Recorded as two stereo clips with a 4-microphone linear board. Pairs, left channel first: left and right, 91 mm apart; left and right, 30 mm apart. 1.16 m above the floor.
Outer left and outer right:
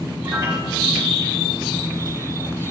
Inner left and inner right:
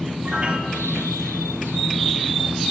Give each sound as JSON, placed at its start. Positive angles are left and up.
{"t": 0.2, "sound": "a piano", "side_deg": -30, "distance_m": 1.9}